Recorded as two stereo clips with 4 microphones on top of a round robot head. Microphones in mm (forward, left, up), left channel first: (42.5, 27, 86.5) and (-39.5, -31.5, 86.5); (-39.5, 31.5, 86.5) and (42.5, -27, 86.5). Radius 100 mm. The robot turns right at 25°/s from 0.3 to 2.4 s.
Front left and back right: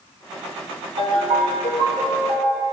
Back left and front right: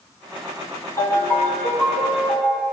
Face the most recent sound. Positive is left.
turn(degrees=-120)